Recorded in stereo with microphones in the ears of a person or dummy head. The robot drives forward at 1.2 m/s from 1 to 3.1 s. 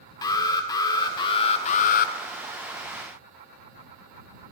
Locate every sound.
0.2 s an alarm: 25° left (ahead or behind), 1.8 m; by 2.1 s 65° left (ahead or behind), 0.8 m